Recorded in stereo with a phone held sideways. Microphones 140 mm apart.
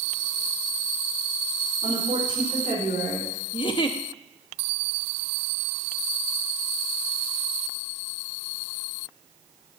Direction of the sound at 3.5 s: 40° left (ahead or behind).